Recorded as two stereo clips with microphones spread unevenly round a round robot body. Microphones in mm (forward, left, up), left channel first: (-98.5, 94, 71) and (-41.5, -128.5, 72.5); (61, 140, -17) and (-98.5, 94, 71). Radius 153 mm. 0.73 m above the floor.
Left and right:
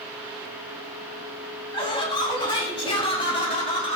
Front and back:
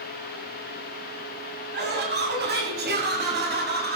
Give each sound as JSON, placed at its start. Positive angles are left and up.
{"t": 1.7, "sound": "laughter", "azimuth_deg": 175, "distance_m": 7.0}